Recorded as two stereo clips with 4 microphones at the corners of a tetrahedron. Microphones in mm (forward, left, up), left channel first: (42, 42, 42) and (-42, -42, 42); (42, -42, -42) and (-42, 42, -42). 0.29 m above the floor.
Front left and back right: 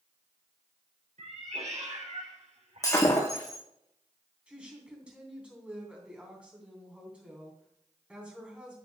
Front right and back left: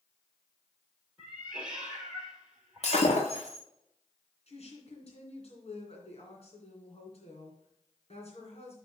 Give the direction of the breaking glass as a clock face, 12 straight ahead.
12 o'clock.